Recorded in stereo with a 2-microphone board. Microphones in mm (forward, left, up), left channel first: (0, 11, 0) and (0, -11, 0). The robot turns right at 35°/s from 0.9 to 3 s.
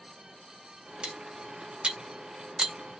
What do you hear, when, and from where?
1.0 s cutlery clinking: 75° right (ahead or behind), 1.5 m; by 2.7 s 40° right (ahead or behind), 1.5 m